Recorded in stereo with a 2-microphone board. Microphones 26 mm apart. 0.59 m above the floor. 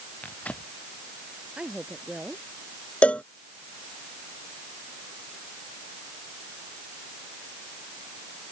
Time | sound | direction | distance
0.2 | tearing paper | 65° left (ahead or behind) | ?
1.6 | a woman speaking | 35° right (ahead or behind) | ?
3.0 | a cowbell | 55° left (ahead or behind) | ?